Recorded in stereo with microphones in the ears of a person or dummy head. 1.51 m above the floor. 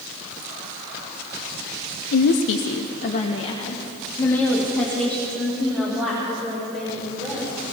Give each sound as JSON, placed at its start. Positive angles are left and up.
{"t": 2.1, "sound": "a woman speaking", "side_deg": 55, "distance_m": 0.7}